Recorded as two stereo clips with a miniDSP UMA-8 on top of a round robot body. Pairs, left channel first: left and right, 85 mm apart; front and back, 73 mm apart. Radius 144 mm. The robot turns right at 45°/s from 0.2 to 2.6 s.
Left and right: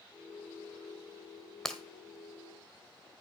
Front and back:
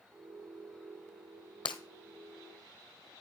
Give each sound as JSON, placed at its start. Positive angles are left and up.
{"t": 1.6, "sound": "breaking glass", "azimuth_deg": 5, "distance_m": 1.1}